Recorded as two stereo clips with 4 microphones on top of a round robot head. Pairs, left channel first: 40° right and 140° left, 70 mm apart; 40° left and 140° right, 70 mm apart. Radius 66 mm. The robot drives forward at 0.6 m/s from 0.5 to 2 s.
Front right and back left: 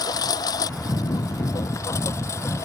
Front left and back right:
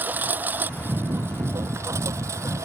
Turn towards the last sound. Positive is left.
turn(degrees=-90)